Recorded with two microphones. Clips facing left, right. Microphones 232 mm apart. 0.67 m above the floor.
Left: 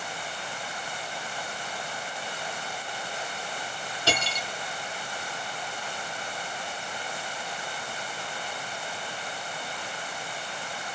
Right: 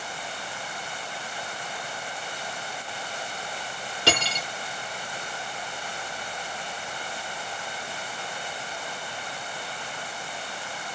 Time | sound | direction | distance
4.1 | cutlery clinking | 80° right | 0.9 m